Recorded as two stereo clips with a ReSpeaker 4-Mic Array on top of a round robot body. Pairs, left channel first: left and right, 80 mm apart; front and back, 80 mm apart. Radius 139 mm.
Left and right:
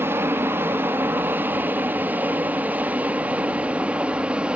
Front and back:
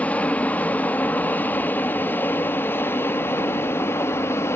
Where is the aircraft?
60° right; by 4.6 s 25° right.